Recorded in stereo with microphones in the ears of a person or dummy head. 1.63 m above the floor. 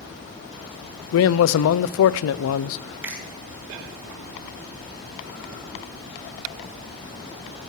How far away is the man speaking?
About 0.5 m.